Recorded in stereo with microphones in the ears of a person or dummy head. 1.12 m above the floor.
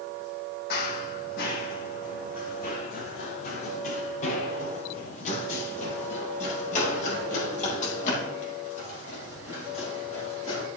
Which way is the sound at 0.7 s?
55° left (ahead or behind).